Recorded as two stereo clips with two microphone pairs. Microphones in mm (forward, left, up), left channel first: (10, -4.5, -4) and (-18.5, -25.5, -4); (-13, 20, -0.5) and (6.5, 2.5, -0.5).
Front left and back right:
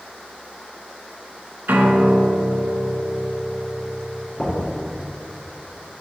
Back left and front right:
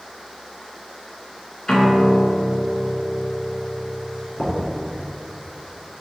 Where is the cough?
I don't hear a cough.